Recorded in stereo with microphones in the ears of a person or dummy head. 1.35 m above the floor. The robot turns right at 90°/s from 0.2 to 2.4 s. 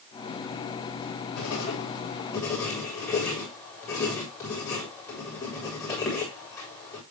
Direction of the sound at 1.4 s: 70° left (ahead or behind).